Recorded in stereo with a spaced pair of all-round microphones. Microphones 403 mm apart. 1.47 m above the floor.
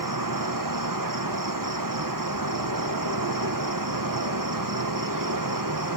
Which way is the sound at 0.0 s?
55° right (ahead or behind).